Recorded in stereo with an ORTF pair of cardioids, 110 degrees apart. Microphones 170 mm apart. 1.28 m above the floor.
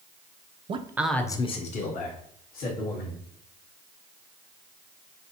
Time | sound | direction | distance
0.7 | a man speaking | 35° right | 0.5 m